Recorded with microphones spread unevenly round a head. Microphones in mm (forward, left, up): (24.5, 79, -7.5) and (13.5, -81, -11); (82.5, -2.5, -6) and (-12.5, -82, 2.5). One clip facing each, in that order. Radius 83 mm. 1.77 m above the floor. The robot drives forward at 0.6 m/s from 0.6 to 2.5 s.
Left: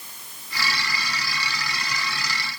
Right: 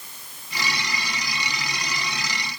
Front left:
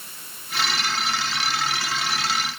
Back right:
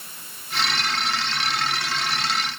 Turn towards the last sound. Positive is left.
No sound to turn to.